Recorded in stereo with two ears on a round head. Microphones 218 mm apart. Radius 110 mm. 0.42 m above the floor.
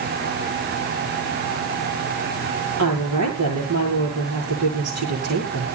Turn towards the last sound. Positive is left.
turn(degrees=-65)  # may be behind; listen again after turning